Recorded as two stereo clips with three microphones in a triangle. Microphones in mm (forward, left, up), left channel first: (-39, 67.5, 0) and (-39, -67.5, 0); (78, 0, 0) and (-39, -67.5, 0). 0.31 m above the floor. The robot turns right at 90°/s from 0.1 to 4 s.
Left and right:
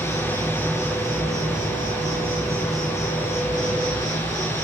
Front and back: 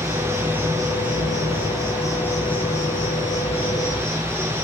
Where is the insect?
125° left, 4.5 m; by 4.7 s 115° left, 4.5 m.